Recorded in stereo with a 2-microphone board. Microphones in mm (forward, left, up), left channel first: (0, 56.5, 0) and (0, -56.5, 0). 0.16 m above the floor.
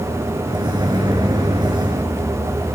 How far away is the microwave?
About 2.5 m.